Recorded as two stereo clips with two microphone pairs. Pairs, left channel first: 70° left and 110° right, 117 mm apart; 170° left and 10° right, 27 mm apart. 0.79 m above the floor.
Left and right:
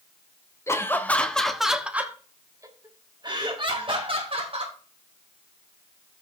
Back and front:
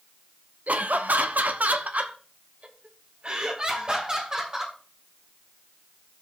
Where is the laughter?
5° left, 1.2 m; by 4.8 s 75° right, 2 m.